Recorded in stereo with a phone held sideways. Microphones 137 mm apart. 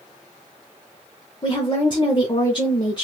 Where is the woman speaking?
35° left (ahead or behind), 0.6 m.